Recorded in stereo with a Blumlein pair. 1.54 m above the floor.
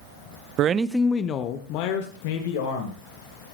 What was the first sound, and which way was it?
A man speaking, 35° right.